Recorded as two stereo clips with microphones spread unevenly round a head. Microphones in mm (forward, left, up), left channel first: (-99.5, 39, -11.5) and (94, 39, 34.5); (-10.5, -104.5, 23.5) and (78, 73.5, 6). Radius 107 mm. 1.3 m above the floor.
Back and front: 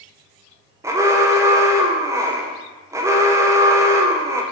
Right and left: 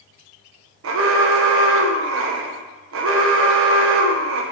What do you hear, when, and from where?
0.8 s an alarm: 80° left, 0.8 m